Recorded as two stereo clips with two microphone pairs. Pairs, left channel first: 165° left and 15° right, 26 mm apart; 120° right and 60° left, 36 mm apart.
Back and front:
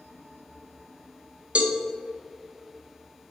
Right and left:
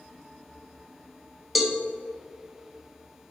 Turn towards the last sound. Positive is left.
turn(degrees=-20)